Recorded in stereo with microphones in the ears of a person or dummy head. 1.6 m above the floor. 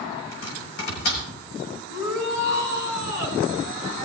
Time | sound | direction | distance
0.3 | chopping | 85° left | 6 m
1.9 | a shout | 65° left (ahead or behind) | 7.5 m